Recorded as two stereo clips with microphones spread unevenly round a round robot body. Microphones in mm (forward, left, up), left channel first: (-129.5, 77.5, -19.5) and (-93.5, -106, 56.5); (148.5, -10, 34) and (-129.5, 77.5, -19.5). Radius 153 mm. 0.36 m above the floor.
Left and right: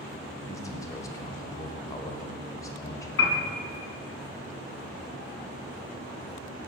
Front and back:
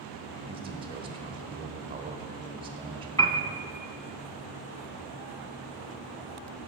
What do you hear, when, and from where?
0.5 s a man speaking: 115° left, 1.1 m
3.2 s a piano: 60° left, 0.8 m